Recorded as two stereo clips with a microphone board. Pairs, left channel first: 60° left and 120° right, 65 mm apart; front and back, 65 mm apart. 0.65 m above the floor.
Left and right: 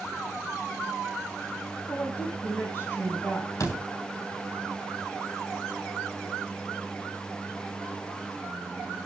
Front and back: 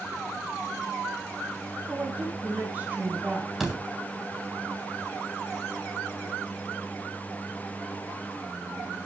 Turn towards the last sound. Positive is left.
turn(degrees=95)